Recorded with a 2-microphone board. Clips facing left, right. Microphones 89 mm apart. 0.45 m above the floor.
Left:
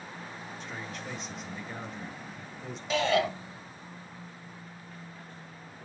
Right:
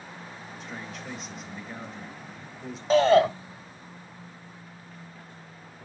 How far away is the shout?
About 1.7 m.